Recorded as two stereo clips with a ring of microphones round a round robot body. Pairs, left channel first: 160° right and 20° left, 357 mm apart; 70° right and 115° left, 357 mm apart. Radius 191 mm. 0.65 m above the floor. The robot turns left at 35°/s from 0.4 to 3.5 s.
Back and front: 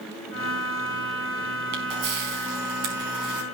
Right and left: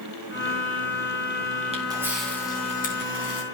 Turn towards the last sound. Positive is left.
turn(degrees=-25)